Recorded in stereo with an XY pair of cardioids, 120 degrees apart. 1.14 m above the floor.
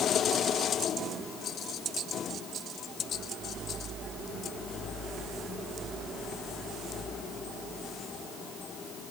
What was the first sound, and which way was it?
Only background noise.